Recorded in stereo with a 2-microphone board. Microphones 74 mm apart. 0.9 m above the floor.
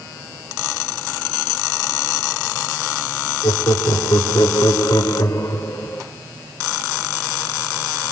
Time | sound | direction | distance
3.4 | laughter | 75° left (ahead or behind) | 3 m